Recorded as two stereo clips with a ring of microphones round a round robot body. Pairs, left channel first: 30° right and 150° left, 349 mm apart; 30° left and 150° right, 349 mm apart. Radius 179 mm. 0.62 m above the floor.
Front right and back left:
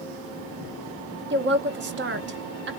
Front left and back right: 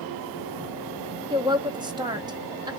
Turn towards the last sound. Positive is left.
turn(degrees=145)